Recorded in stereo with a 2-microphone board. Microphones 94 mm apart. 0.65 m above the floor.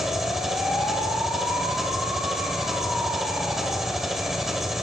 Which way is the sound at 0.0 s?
5° right (ahead or behind).